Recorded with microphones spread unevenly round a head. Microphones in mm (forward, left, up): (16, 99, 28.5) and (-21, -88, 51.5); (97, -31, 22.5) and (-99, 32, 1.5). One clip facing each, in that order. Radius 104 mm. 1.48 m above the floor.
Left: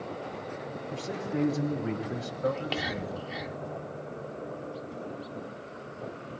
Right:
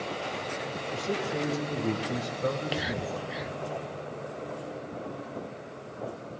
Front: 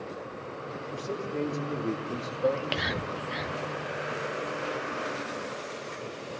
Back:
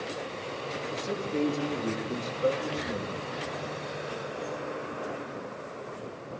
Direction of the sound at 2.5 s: 20° right.